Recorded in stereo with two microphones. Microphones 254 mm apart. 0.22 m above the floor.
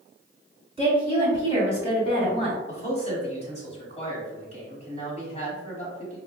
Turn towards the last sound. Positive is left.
turn(degrees=25)  # may be behind; listen again after turning